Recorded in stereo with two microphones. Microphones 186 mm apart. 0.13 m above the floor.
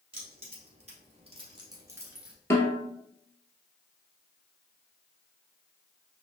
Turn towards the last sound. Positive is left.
turn(degrees=15)  # may be behind; listen again after turning